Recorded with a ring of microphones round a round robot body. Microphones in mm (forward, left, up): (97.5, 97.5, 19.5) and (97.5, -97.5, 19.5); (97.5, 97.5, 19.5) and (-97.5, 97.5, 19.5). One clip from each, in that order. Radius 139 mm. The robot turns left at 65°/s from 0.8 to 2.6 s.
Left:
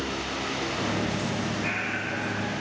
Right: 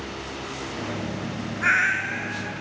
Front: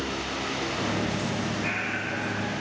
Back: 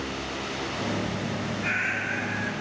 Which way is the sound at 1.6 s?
95° right.